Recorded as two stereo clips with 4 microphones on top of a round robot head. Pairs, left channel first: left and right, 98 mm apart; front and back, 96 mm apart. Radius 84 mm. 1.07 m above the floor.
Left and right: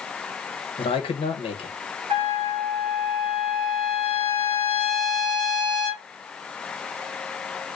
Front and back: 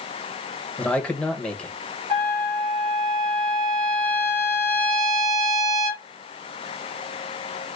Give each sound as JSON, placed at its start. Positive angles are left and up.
{"t": 0.8, "sound": "a man speaking", "azimuth_deg": 80, "distance_m": 1.3}
{"t": 2.1, "sound": "a trumpet", "azimuth_deg": -130, "distance_m": 1.8}